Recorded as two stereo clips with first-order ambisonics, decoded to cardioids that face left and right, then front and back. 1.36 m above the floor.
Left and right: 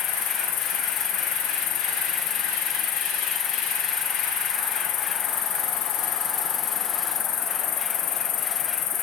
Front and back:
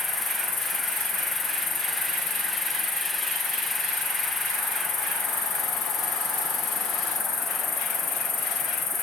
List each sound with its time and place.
0.0 s an insect: 60° left, 0.9 m